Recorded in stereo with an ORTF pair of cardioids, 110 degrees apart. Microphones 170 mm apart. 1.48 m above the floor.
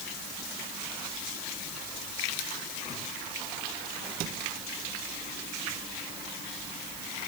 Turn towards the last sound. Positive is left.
No sound to turn to.